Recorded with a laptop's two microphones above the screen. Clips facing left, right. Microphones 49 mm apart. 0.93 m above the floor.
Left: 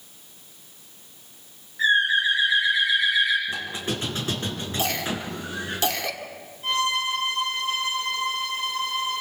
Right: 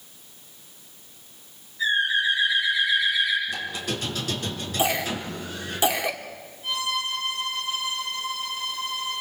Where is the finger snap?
No finger snap in this recording.